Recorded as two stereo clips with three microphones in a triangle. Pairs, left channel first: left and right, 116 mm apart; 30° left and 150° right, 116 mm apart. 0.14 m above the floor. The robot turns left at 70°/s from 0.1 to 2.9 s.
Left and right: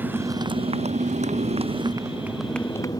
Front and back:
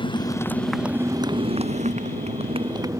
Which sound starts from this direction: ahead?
A motorcycle, at 0.0 s.